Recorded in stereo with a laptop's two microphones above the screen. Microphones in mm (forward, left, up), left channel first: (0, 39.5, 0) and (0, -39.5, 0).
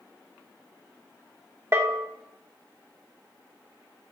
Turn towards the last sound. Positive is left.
turn(degrees=-35)  # may be behind; listen again after turning